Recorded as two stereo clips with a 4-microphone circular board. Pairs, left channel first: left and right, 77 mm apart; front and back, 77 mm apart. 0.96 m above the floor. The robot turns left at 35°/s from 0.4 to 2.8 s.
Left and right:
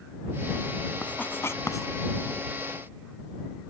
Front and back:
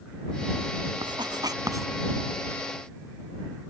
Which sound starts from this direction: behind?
Writing, at 1.0 s.